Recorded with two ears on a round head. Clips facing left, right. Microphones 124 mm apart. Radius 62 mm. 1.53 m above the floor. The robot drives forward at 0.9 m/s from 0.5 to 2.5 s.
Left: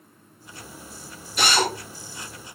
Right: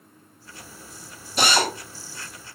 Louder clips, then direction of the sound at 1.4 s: Right 1 dB; 30° right (ahead or behind).